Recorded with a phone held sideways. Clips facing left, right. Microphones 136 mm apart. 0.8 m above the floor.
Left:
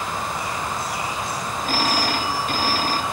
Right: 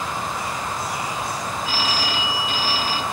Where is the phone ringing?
50° left (ahead or behind), 0.7 m.